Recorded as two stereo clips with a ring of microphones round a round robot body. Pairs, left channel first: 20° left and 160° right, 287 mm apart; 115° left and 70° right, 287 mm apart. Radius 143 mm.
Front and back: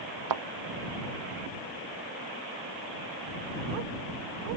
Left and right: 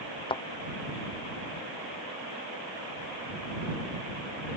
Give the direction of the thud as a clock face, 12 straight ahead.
6 o'clock.